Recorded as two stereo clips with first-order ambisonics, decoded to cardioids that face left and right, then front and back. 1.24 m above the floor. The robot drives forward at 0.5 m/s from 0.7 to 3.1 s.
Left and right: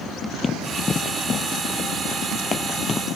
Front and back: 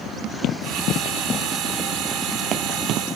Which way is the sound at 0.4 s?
20° left.